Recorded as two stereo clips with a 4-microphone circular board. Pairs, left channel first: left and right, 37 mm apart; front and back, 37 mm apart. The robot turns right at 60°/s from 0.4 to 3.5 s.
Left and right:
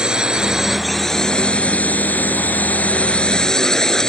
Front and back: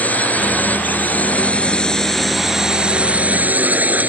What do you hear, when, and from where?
0.0 s a drone: 25° right; by 4.1 s 160° left